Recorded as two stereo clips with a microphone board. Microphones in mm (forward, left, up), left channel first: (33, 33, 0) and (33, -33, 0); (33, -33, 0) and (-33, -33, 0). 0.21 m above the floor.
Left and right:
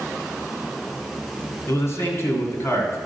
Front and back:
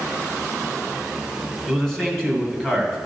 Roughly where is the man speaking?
Left.